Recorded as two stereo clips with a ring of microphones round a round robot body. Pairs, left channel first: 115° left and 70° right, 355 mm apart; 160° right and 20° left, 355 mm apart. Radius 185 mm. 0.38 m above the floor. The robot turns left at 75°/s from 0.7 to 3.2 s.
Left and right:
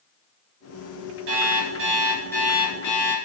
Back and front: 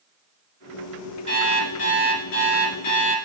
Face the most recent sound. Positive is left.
turn(degrees=130)